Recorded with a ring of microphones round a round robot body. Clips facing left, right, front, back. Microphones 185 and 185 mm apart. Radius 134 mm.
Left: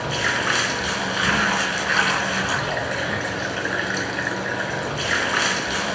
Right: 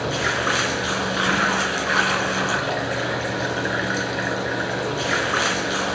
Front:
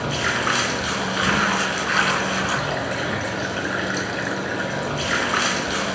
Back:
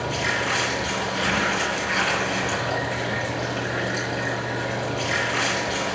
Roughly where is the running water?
Ahead.